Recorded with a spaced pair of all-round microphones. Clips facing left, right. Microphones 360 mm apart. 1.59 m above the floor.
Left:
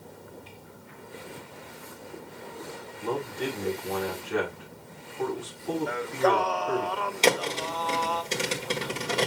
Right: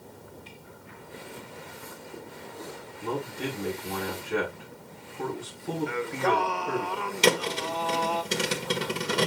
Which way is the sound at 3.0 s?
35° right (ahead or behind).